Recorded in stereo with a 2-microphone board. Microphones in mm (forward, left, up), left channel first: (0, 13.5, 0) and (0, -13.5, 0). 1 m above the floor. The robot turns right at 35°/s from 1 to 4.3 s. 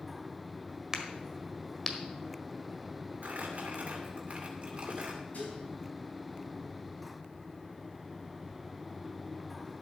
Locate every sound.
0.9 s a crack: 20° right (ahead or behind), 1.5 m; by 2.0 s 10° left (ahead or behind), 1.5 m
3.2 s crumpling: 80° right, 2 m; by 5.2 s 45° right (ahead or behind), 2 m
5.3 s dishes clattering: 75° left (ahead or behind), 5 m